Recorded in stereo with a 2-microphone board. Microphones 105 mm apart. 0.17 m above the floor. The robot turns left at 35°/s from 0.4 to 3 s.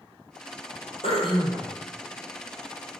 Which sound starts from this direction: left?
Throat clearing, at 1.0 s.